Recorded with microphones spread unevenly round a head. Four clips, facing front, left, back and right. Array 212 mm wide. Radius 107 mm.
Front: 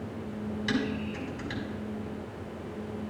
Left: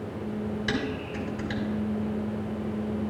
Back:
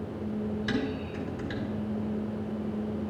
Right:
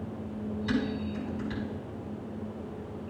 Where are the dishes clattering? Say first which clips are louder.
Even, even; 120° left, 4.5 m.